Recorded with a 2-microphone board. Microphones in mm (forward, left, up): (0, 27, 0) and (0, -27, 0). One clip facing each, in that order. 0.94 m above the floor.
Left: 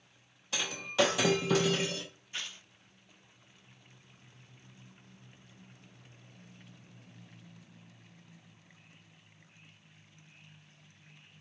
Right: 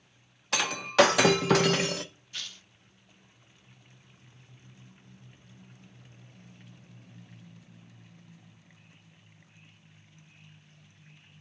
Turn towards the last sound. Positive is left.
turn(degrees=25)  # may be behind; listen again after turning